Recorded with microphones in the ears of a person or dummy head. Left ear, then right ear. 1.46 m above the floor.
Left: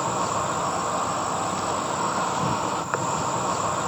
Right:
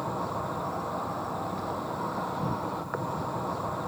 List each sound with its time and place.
0.0 s an insect: 70° left (ahead or behind)